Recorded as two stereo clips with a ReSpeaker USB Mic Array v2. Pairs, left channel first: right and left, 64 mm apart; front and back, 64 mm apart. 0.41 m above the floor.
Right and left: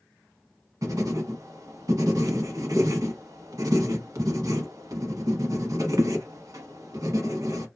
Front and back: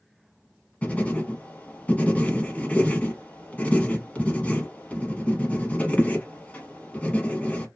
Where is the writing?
70° left, 0.7 m.